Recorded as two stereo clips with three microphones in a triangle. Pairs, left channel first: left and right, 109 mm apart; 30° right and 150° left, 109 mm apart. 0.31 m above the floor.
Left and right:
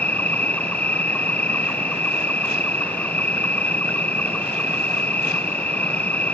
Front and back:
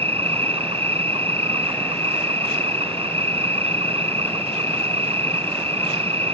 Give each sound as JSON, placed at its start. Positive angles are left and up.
{"t": 0.0, "sound": "an insect", "azimuth_deg": 165}